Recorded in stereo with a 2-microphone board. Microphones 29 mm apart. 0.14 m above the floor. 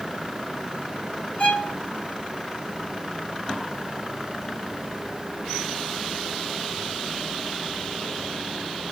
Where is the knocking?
I don't hear knocking.